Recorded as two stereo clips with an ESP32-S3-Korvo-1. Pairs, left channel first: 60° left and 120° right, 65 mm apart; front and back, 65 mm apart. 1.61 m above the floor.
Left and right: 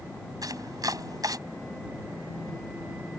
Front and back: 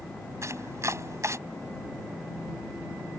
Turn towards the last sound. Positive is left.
turn(degrees=-140)